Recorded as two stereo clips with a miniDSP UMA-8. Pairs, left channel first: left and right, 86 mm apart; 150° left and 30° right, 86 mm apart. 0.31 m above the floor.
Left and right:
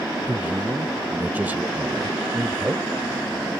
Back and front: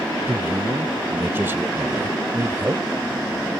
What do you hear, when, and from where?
0.3 s a man speaking: 45° right